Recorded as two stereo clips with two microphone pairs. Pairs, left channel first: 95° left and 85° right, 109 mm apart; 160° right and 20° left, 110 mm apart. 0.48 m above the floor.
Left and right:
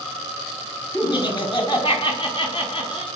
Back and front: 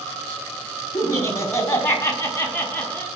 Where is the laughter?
135° left, 4.5 m; by 3.1 s 125° left, 5.5 m.